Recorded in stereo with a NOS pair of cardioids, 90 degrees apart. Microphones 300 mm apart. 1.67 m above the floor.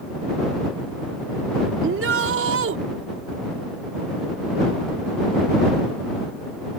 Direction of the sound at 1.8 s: 45° right.